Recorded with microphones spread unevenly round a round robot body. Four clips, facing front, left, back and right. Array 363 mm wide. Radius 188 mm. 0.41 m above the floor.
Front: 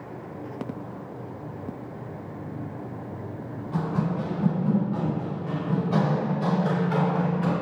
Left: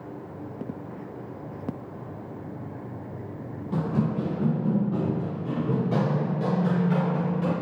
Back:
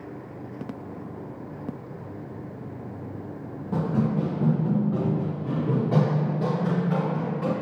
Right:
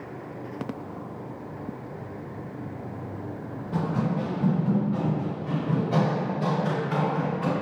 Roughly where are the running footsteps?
Behind left.